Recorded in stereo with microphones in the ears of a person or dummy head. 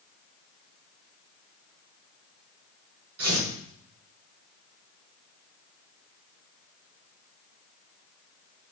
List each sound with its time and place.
3.2 s tearing paper: 65° right (ahead or behind), 6.5 m